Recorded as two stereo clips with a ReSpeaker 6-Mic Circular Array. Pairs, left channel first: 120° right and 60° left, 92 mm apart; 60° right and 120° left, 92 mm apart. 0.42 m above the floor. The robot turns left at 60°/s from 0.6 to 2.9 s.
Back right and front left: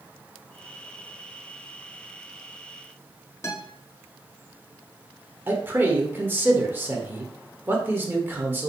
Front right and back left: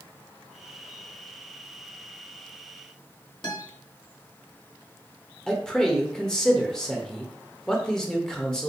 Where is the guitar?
70° right, 1.1 m.